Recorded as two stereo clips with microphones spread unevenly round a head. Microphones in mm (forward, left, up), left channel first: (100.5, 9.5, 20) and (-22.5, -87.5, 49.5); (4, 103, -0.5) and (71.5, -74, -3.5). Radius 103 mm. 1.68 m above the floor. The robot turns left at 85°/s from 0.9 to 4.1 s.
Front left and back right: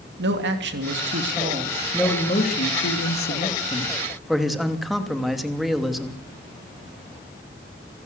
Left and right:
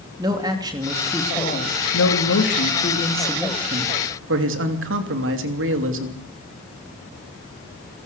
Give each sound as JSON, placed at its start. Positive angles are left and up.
{"t": 0.2, "sound": "a man speaking", "azimuth_deg": -140, "distance_m": 3.0}